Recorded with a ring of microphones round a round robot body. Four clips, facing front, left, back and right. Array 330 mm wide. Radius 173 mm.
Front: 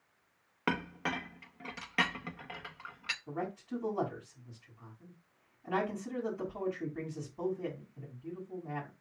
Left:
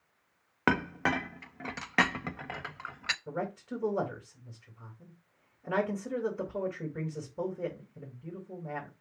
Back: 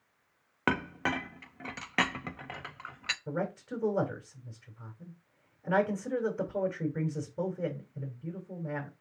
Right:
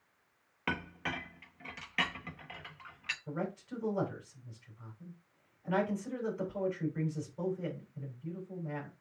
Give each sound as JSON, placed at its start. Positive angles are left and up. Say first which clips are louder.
{"t": 0.7, "sound": "a clink", "louder": "left 9 dB, back 4 dB", "azimuth_deg": 115, "distance_m": 0.8}
{"t": 3.3, "sound": "a man speaking", "louder": "left 1 dB, back 4 dB", "azimuth_deg": 150, "distance_m": 4.0}